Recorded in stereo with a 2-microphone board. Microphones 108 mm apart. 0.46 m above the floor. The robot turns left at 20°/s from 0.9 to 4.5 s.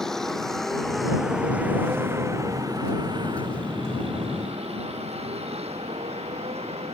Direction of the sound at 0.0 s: 5° left (ahead or behind).